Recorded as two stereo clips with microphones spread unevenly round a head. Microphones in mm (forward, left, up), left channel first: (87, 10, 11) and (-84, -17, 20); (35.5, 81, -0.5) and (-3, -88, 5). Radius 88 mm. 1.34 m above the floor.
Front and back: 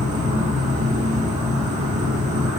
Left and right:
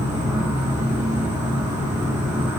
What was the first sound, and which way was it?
An insect, 175° right.